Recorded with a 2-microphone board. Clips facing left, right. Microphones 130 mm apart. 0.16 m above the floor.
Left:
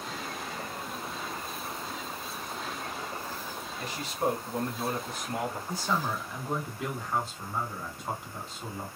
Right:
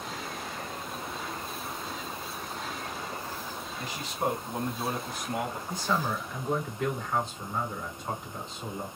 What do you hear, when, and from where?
3.8 s a man speaking: 20° right (ahead or behind), 1.8 m; by 5.6 s 5° right (ahead or behind), 1.6 m
5.7 s a man speaking: 5° left (ahead or behind), 1.1 m